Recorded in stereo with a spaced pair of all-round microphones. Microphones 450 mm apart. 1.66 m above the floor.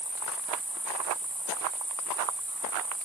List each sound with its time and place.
0.0 s an insect: 45° right (ahead or behind)